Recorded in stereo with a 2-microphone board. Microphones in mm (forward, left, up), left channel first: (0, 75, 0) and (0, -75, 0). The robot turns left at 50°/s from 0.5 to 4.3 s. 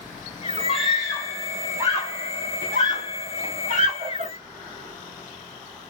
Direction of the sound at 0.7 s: 35° left (ahead or behind).